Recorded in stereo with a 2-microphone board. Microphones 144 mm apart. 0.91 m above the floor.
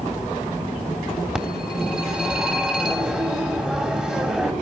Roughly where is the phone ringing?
Centre.